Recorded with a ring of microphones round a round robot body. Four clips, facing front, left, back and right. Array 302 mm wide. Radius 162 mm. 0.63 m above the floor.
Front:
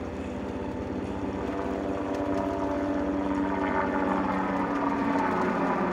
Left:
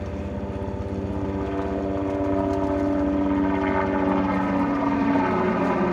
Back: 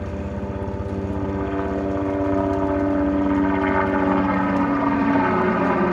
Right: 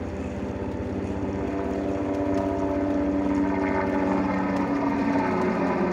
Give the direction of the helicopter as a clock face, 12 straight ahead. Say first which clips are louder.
Even, back 4 dB; 6 o'clock.